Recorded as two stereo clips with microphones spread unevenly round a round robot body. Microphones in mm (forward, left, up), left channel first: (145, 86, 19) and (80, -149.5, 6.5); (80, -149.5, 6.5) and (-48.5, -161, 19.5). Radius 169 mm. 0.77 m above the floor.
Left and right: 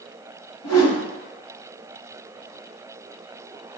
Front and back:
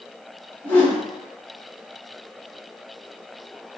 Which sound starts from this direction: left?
A whoosh, at 0.6 s.